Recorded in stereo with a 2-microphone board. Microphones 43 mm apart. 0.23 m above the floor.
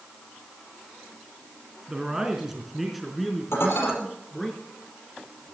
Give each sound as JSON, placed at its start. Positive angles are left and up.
{"t": 1.9, "sound": "a man speaking", "side_deg": -15, "distance_m": 2.0}
{"t": 3.5, "sound": "dishes clattering", "side_deg": 70, "distance_m": 4.0}